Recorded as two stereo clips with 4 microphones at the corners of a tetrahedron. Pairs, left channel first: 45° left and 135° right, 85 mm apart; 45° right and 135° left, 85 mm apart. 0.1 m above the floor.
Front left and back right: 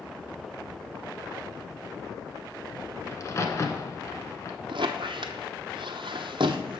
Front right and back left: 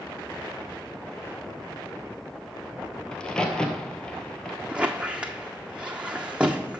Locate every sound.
3.1 s a crack: 30° left, 0.9 m
4.7 s a squeak: 150° right, 0.7 m